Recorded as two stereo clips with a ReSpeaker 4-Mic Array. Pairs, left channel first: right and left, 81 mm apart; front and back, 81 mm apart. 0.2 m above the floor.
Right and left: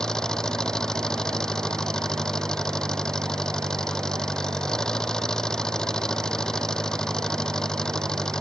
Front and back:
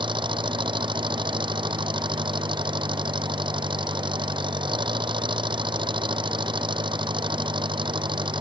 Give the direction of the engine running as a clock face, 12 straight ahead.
6 o'clock.